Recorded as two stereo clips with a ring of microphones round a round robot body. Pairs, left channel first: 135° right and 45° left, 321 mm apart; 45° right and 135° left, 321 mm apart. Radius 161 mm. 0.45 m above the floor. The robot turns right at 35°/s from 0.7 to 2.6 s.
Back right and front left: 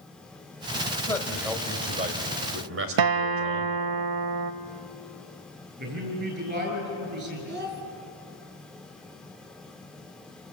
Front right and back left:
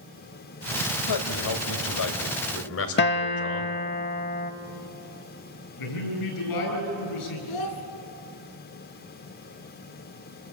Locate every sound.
1.1 s a man speaking: 55° right, 2.5 m; by 3.8 s straight ahead, 2.5 m
3.0 s a guitar: 15° left, 0.8 m
5.8 s a man speaking: 15° right, 8.5 m
7.5 s a child speaking: 15° right, 3 m